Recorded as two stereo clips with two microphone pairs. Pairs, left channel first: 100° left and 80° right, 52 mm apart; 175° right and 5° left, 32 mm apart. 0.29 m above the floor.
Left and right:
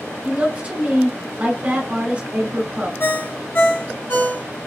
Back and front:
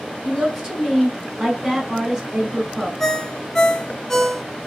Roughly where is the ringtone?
Behind left.